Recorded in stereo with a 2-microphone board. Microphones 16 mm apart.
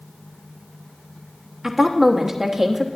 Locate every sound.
1.6 s a woman speaking: 35° right (ahead or behind), 1.2 m